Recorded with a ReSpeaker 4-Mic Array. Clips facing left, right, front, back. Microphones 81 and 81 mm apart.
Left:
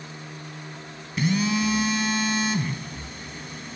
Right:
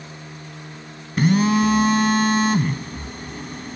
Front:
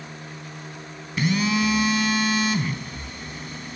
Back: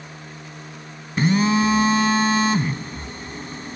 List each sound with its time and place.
1.2 s a phone buzzing: 125° right, 0.9 m